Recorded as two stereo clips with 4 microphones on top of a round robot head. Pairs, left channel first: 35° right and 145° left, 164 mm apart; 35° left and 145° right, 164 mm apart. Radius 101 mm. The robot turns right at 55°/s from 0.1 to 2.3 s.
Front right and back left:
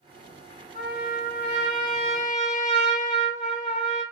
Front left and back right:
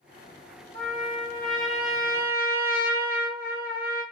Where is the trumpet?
115° left, 2.5 m; by 4.0 s 160° right, 2.5 m.